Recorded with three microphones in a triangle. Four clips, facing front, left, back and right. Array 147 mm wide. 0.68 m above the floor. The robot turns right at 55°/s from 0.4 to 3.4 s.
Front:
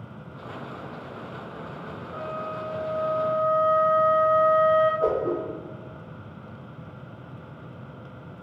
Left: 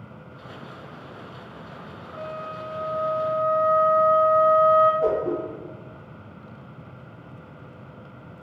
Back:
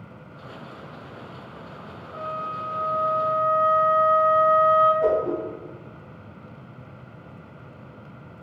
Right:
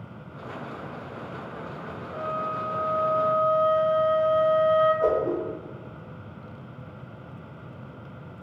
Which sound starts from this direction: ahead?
A whoosh, at 5.0 s.